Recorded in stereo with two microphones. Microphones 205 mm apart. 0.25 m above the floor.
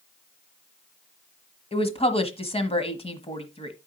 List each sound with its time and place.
1.7 s a woman speaking: 30° left (ahead or behind), 1.3 m